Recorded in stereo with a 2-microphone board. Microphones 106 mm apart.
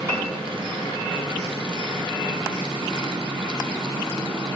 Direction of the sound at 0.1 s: 30° right (ahead or behind).